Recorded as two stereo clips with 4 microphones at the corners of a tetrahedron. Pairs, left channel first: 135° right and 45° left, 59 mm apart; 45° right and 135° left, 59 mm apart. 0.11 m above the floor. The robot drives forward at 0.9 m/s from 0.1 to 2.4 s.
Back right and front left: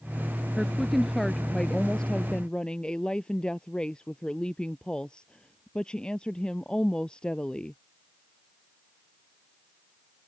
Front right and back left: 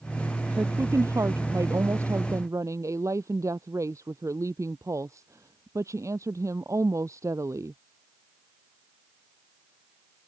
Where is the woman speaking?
125° left; by 7.8 s 155° left.